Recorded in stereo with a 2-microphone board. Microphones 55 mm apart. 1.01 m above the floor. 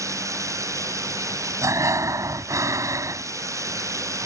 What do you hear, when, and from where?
0.0 s running water: 65° right (ahead or behind)
1.6 s breathing: 70° right (ahead or behind)